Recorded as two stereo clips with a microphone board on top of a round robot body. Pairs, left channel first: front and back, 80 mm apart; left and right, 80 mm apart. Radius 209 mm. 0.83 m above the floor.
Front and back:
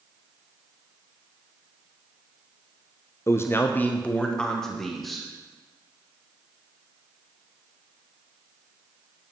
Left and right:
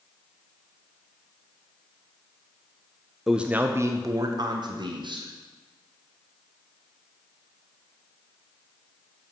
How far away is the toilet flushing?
No toilet flushing in this recording.